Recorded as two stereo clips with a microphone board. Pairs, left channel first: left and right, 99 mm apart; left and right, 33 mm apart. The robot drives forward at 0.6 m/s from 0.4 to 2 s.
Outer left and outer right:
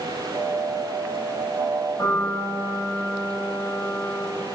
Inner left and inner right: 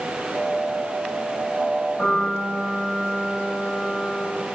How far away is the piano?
About 2.5 m.